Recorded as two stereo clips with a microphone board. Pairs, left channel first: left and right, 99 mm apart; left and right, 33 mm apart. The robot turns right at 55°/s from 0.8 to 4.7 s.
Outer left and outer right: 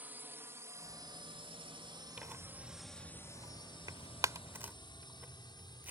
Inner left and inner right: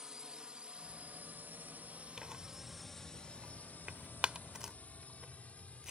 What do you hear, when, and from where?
0.0 s a drone: 20° right (ahead or behind); by 5.9 s 50° left (ahead or behind)
2.2 s tearing paper: 10° right (ahead or behind); by 5.9 s 20° right (ahead or behind)